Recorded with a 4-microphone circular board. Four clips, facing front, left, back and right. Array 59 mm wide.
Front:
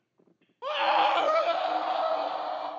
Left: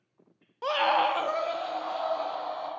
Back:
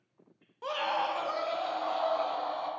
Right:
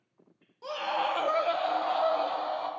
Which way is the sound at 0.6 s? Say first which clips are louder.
Left 6 dB, front 7 dB; 75° left.